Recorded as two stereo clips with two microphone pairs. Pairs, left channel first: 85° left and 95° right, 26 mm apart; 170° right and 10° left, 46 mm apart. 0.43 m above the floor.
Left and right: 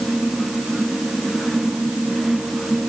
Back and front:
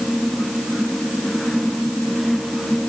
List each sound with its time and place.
Only background noise.